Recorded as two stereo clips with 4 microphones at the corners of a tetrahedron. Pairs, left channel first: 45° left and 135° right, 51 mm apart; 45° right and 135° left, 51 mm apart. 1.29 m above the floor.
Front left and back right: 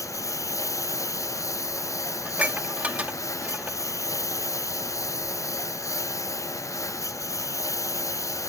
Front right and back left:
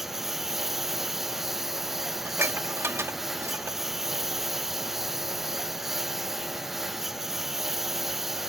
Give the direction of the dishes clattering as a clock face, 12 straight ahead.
6 o'clock.